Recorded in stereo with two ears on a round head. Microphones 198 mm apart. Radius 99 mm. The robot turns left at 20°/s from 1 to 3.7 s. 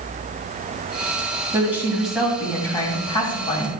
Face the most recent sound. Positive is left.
turn(degrees=150)